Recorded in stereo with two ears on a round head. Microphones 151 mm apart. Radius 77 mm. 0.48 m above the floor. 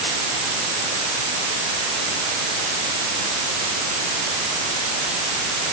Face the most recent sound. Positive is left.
No sound to turn to.